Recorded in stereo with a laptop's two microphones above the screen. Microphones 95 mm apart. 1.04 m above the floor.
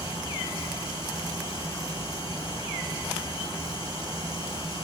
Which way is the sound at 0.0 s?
75° left (ahead or behind).